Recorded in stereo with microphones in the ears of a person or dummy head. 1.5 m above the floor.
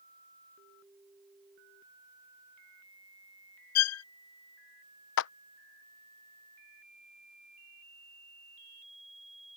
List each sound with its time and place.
3.8 s a violin: 85° left
5.2 s a clap: 70° left (ahead or behind)